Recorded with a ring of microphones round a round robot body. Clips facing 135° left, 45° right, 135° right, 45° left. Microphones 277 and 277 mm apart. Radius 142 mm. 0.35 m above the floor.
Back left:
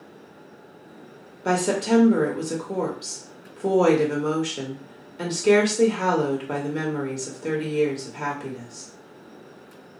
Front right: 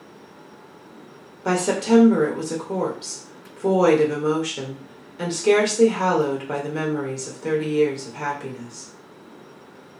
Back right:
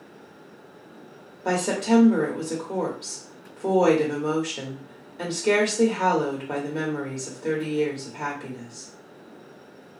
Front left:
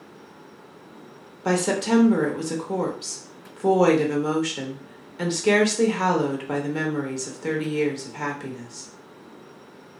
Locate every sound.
1.4 s a woman speaking: 40° left, 0.8 m